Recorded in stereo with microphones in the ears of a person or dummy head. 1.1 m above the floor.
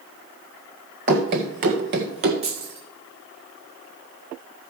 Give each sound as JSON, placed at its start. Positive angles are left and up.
{"t": 1.1, "sound": "running footsteps", "side_deg": -30, "distance_m": 1.3}
{"t": 2.4, "sound": "keys jangling", "side_deg": -30, "distance_m": 3.5}